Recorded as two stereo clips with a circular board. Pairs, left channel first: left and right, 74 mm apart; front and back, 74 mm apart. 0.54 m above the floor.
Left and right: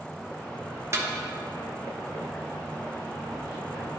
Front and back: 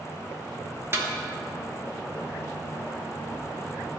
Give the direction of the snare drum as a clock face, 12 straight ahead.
4 o'clock.